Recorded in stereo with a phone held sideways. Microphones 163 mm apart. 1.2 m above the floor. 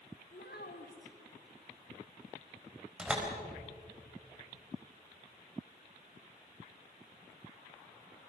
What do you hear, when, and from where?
0.3 s a child speaking: 90° left, 2.5 m
3.0 s a door slam: 5° right (ahead or behind), 4 m